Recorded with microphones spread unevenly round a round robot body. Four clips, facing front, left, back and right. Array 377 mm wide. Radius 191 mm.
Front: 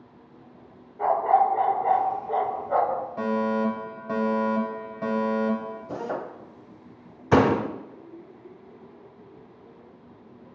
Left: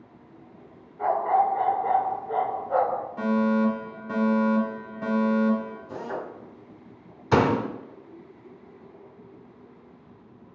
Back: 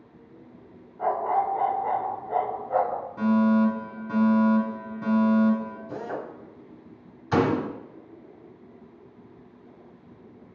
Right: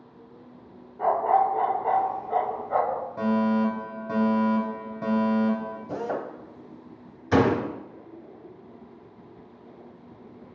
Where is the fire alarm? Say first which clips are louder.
Left 1 dB, back 6 dB; 45° right, 1.9 m.